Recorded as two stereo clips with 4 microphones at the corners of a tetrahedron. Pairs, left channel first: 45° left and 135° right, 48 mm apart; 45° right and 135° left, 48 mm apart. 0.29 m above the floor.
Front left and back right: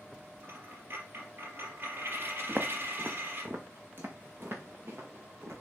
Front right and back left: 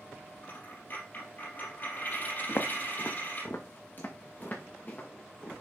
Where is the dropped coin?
95° right, 4 m.